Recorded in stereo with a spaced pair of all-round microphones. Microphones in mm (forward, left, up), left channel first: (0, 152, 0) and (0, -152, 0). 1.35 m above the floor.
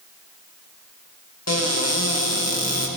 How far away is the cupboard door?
About 1.7 m.